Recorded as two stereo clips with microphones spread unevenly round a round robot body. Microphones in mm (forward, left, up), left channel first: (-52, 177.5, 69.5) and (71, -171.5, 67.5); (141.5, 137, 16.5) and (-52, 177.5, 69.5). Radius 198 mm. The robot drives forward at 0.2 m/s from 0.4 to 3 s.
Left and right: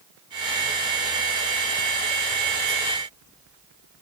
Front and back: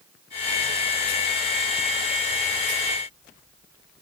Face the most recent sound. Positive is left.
No sound to turn to.